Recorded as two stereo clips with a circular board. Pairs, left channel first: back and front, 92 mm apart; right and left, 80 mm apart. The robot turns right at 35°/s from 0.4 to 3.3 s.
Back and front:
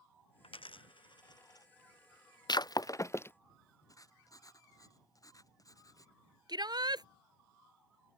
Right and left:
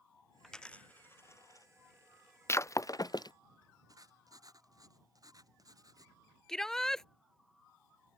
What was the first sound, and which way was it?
A dropped coin, 175° right.